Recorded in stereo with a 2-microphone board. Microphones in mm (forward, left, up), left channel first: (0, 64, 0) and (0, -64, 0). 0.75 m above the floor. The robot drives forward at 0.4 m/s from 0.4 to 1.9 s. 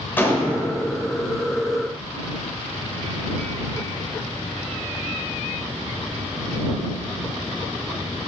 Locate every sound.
0.2 s a gunshot: 15° left (ahead or behind), 1.6 m